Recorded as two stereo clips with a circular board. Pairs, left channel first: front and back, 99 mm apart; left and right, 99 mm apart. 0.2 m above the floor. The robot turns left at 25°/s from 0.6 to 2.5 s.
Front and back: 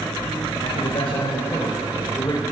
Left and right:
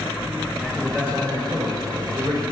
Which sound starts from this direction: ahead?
A man speaking, at 0.6 s.